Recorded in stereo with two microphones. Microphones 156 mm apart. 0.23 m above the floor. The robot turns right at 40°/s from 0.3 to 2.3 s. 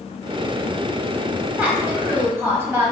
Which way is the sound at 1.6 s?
10° right (ahead or behind).